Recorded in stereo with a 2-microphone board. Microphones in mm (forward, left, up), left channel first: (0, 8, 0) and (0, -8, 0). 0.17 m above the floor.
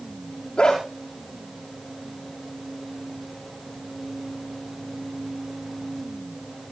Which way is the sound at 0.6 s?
50° left (ahead or behind).